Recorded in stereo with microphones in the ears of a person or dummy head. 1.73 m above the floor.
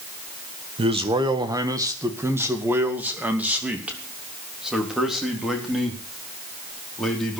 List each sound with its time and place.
0.8 s a man speaking: 30° right (ahead or behind), 1.6 m; by 7.4 s 5° left (ahead or behind), 4.5 m